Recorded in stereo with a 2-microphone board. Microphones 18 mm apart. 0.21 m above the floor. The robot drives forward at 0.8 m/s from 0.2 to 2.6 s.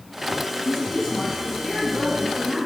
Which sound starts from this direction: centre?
A woman speaking, at 0.7 s.